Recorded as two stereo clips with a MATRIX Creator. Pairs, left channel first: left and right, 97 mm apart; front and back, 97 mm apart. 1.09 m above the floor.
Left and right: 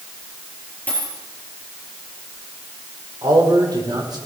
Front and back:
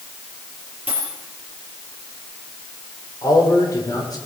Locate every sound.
0.9 s a dropped coin: 15° left, 5.5 m
3.2 s a man speaking: 45° right, 4 m